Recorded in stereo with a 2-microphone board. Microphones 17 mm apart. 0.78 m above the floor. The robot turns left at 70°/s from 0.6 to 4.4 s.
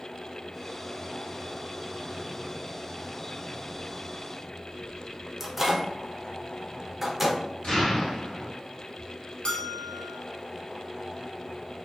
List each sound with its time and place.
5.4 s a microwave: 15° right (ahead or behind), 0.5 m
7.6 s an explosion: 75° left (ahead or behind), 1.2 m
9.4 s a bell: 55° left (ahead or behind), 0.5 m